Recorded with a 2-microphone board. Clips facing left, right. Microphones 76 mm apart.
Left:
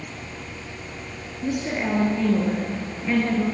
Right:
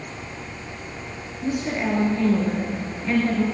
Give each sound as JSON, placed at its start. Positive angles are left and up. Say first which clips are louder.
{"t": 1.4, "sound": "a woman speaking", "louder": "right 1 dB", "side_deg": 5, "distance_m": 1.8}